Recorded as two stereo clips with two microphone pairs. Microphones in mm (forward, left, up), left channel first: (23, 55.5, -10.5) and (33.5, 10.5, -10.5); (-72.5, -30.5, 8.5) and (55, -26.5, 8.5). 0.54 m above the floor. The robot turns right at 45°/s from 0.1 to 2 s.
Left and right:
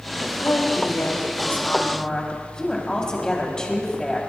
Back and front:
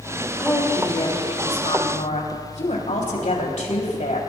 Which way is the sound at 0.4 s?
100° left.